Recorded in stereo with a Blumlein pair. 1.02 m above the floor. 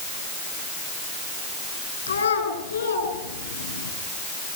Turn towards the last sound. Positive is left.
turn(degrees=70)